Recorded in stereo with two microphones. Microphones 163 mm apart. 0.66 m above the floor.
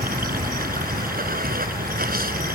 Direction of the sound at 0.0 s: 65° right (ahead or behind).